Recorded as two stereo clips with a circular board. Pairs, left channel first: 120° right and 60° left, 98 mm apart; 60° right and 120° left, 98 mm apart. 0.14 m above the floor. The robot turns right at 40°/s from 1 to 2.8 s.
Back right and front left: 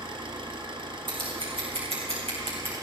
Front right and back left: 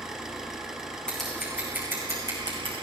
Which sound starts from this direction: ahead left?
An engine running, at 0.0 s.